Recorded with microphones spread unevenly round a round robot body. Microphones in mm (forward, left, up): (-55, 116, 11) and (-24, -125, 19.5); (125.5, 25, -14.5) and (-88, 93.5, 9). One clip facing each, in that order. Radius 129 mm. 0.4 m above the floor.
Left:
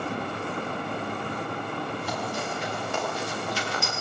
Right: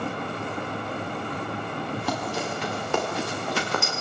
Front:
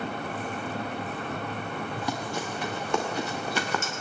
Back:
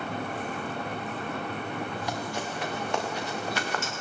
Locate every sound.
2.0 s running footsteps: 50° right, 5.5 m; by 3.9 s 35° right, 4.5 m